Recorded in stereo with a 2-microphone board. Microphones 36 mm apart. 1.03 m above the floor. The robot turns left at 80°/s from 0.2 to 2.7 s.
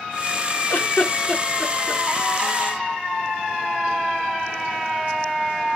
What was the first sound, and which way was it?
A giggle, 65° left (ahead or behind).